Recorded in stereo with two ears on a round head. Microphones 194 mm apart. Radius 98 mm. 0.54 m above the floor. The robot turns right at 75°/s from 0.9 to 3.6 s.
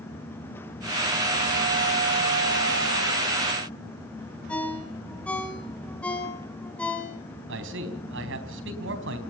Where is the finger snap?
I don't hear a finger snap.